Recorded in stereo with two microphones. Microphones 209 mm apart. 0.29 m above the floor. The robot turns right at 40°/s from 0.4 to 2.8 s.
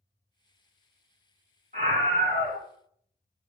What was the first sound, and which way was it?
A scream, 75° right.